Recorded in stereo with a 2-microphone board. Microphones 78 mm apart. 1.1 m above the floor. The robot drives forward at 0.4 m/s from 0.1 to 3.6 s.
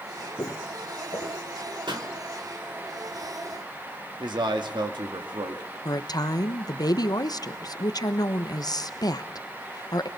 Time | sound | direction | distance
0.4 | footsteps | 45° left (ahead or behind) | 2.0 m
1.9 | a pop | 85° right | 2.5 m
4.2 | a man speaking | 75° right (ahead or behind) | 2.5 m
5.8 | a woman speaking | 55° left (ahead or behind) | 1.0 m